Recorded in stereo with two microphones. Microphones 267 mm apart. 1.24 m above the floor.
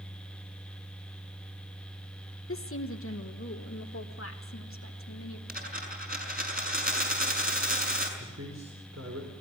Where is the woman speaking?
55° left (ahead or behind), 1.2 m.